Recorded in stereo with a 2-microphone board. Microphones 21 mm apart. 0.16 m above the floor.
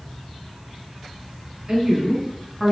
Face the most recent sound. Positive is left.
turn(degrees=5)  # may be behind; listen again after turning